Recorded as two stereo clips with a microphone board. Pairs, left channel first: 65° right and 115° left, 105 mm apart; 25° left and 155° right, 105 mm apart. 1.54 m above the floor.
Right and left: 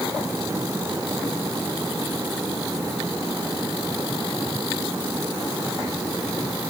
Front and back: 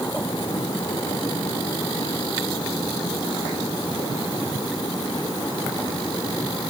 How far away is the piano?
I don't hear a piano.